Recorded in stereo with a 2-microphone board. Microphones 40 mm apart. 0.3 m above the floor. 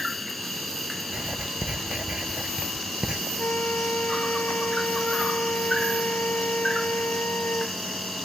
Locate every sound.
0.0 s an insect: 5° left (ahead or behind)
1.1 s writing: 25° right (ahead or behind)
3.4 s a flute: 60° left (ahead or behind)